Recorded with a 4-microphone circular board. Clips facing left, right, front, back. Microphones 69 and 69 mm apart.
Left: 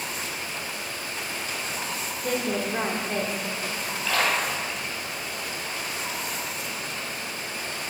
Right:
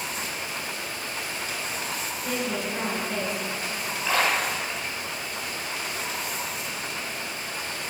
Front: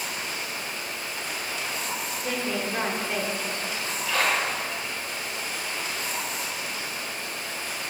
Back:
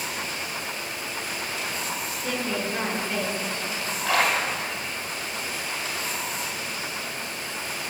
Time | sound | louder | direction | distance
2.2 | a woman speaking | left 3 dB, back 1 dB | 75° left | 1.6 m
4.0 | a splash | right 1 dB, back 2 dB | 165° right | 3 m